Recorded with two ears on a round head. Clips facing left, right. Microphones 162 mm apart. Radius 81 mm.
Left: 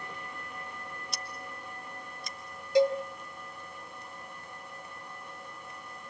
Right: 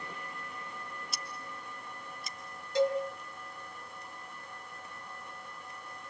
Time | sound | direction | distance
1.1 | scissors | centre (ahead or behind) | 1.2 m
2.8 | a cowbell | 15° left (ahead or behind) | 2.5 m